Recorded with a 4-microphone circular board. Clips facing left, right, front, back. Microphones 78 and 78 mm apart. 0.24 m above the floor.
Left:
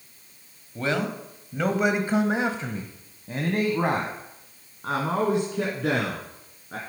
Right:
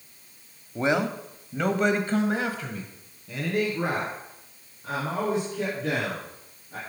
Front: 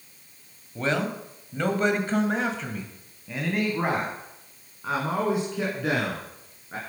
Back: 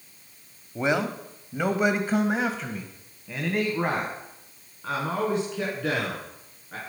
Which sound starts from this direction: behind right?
A man speaking, at 0.8 s.